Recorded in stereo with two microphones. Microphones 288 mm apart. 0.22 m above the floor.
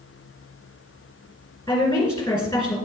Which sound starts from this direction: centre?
A woman speaking, at 1.7 s.